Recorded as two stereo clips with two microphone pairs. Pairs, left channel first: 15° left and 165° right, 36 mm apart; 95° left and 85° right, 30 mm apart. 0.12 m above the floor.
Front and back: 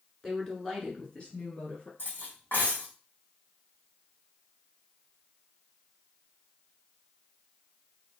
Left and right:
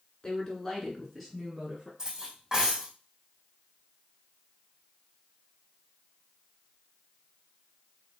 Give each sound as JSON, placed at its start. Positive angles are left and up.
{"t": 0.2, "sound": "a woman speaking", "azimuth_deg": 90, "distance_m": 1.8}
{"t": 2.0, "sound": "cutlery clinking", "azimuth_deg": -10, "distance_m": 3.0}